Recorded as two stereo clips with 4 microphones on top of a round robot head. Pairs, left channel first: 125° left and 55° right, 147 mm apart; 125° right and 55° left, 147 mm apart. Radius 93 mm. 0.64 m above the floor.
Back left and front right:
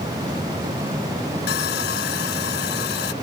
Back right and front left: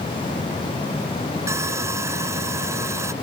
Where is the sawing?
130° left.